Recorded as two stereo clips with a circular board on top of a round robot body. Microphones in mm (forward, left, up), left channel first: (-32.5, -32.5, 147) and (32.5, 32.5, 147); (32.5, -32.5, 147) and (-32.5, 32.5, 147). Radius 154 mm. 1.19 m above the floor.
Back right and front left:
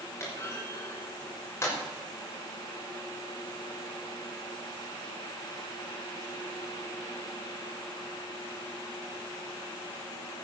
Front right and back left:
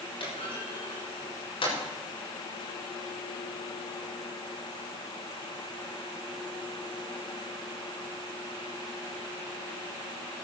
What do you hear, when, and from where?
0.2 s a clunk: 70° right, 6 m